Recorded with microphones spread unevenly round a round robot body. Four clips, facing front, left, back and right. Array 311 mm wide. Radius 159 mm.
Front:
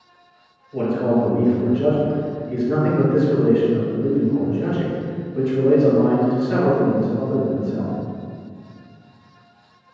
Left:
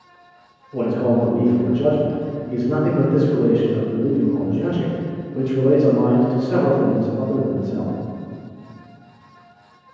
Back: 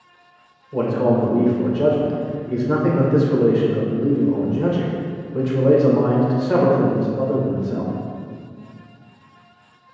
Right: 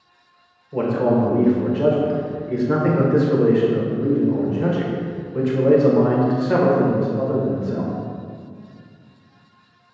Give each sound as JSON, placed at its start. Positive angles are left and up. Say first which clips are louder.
{"t": 0.7, "sound": "a man speaking", "louder": "even, back 1 dB", "azimuth_deg": -145, "distance_m": 1.7}